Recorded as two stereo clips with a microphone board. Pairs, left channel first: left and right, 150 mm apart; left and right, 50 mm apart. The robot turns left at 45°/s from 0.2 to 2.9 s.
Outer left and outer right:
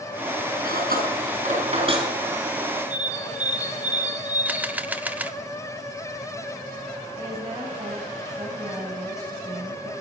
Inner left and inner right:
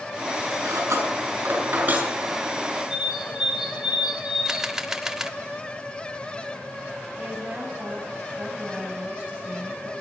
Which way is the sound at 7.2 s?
25° right (ahead or behind).